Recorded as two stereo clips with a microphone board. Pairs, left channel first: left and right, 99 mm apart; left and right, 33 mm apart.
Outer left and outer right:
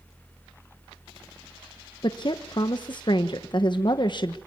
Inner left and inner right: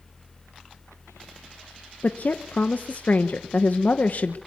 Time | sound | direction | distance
2.0 | a woman speaking | 50° left (ahead or behind) | 1.0 m